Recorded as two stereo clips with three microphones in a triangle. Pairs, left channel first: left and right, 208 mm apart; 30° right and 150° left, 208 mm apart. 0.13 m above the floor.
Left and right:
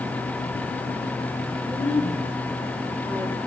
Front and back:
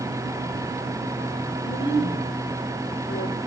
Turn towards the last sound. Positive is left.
turn(degrees=-10)